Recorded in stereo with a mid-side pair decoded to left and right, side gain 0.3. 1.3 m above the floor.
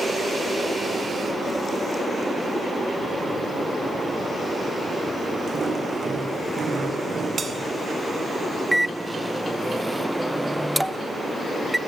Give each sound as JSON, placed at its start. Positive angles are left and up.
{"t": 5.5, "sound": "footsteps", "azimuth_deg": -50, "distance_m": 4.5}
{"t": 7.4, "sound": "a bell", "azimuth_deg": -55, "distance_m": 1.8}
{"t": 8.7, "sound": "a microwave", "azimuth_deg": -5, "distance_m": 0.7}